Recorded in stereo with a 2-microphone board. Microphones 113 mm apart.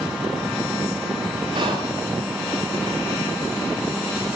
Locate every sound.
1.6 s whispering: 45° right (ahead or behind), 7 m